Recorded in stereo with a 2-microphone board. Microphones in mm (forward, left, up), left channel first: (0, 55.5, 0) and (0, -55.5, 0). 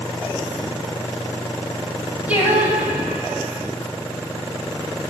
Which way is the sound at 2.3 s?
15° right (ahead or behind).